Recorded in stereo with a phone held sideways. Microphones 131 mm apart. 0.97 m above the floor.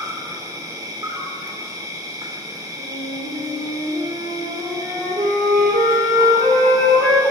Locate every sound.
0.0 s an insect: 25° right (ahead or behind), 0.7 m
2.8 s a flute: 80° right, 1.5 m